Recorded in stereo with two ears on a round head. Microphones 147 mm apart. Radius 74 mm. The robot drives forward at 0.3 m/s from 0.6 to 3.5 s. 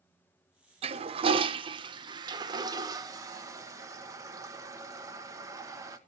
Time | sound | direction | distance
0.8 | a toilet flushing | 35° right (ahead or behind) | 0.7 m